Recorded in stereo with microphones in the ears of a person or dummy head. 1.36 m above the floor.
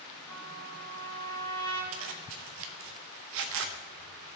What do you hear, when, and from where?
0.3 s a trumpet: 15° left (ahead or behind), 5 m
1.9 s a zipper: 60° right (ahead or behind), 0.9 m